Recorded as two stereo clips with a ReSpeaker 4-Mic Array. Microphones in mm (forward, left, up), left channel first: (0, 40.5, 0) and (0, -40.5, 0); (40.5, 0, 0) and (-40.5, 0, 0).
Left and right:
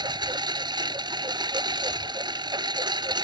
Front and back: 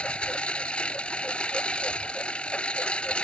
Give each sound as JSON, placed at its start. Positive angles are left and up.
{"t": 0.0, "sound": "a lawn mower", "azimuth_deg": -75}